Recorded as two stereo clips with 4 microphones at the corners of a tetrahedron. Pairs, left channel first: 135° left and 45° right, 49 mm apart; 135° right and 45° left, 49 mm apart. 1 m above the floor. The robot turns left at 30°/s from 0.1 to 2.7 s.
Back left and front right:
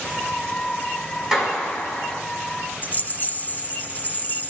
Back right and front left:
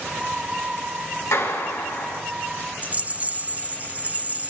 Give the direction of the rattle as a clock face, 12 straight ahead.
9 o'clock.